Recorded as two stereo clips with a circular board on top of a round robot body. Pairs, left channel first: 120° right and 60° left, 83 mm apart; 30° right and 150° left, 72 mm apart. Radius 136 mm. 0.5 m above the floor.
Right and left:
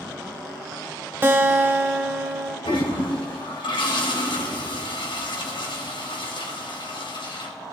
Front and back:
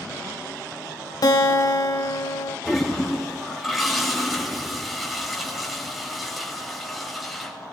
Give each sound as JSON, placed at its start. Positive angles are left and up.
{"t": 1.2, "sound": "a guitar", "azimuth_deg": 0, "distance_m": 1.4}
{"t": 2.6, "sound": "a toilet flushing", "azimuth_deg": -120, "distance_m": 3.0}